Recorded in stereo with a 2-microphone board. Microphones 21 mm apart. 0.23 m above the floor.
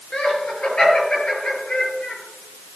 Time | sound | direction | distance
0.1 | laughter | 60° left (ahead or behind) | 5 m